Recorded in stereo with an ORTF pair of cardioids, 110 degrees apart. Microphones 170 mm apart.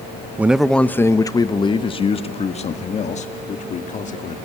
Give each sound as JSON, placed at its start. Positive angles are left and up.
{"t": 0.4, "sound": "a man speaking", "azimuth_deg": -10, "distance_m": 0.7}